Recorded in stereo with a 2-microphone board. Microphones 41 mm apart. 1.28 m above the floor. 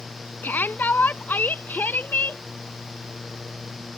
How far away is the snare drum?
No snare drum in this recording.